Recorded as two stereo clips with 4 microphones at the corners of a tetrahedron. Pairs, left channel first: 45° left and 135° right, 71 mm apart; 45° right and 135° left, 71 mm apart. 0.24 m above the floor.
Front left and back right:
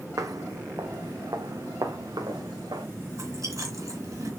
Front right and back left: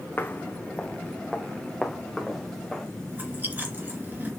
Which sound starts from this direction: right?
Footsteps, at 0.2 s.